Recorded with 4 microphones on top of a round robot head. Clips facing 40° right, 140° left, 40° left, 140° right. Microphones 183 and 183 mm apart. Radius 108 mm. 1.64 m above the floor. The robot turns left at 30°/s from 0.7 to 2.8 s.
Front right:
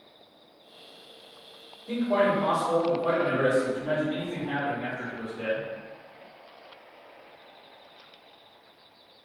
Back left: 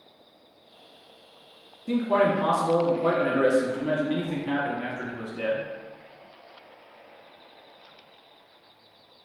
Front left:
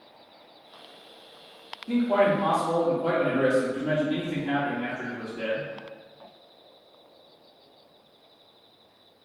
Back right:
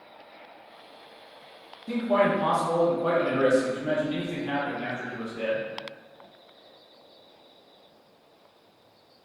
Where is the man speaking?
145° left, 0.8 m; by 5.7 s 120° left, 0.8 m.